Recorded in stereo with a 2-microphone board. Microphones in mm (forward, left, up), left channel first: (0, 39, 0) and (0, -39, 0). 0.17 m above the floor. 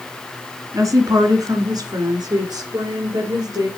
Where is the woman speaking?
45° right (ahead or behind), 1.9 m; by 3.7 s 60° right (ahead or behind), 3.5 m.